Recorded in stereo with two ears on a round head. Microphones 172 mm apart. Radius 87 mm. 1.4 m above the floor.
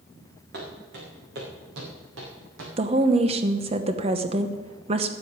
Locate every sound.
0.5 s footsteps: 55° right (ahead or behind), 6 m; by 2.7 s 70° right (ahead or behind), 5.5 m
2.8 s a woman speaking: 30° right (ahead or behind), 0.9 m